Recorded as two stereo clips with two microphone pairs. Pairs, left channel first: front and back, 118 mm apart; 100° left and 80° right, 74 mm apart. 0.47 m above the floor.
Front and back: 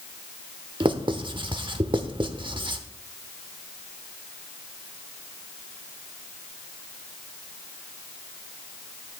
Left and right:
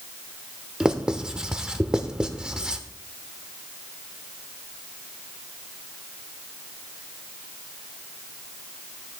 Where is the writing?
155° right, 0.9 m.